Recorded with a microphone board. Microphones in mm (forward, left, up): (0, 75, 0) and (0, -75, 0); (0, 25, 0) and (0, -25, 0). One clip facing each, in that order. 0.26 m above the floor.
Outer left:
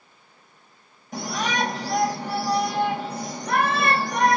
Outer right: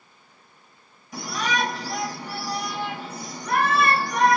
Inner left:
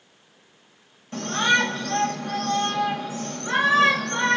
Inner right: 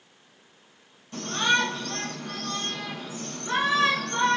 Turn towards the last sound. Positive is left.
turn(degrees=55)  # may be behind; listen again after turning